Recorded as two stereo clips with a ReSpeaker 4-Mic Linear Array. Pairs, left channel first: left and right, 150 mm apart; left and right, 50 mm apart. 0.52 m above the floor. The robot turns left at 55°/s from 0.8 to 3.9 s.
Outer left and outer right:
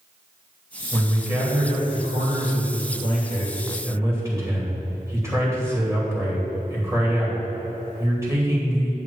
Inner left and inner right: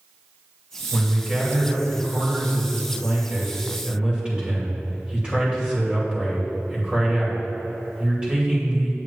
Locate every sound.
0.9 s a man speaking: 5° left, 2.5 m; by 9.0 s 160° right, 2.5 m